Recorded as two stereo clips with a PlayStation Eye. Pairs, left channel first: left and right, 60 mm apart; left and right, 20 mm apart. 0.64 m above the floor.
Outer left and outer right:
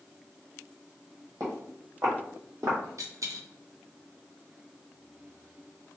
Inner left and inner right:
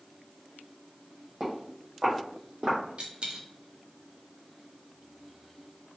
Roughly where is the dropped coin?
Right.